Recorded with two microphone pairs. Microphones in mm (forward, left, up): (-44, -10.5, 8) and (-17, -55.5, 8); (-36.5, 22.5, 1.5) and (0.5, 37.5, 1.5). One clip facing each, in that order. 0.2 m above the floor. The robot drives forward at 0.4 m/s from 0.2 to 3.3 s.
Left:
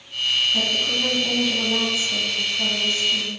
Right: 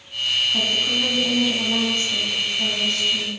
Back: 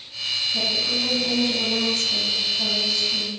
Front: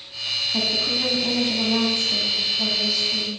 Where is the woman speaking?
15° left, 1.3 m; by 3.3 s 135° left, 1.0 m.